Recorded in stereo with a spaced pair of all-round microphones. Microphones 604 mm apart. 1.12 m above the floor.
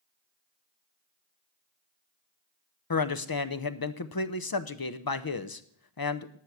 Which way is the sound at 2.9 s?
40° left (ahead or behind).